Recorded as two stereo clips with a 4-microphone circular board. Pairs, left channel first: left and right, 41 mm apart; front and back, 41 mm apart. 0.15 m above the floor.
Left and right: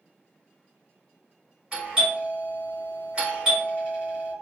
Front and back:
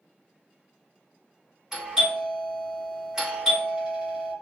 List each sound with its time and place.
1.7 s a doorbell: 120° right, 1.9 m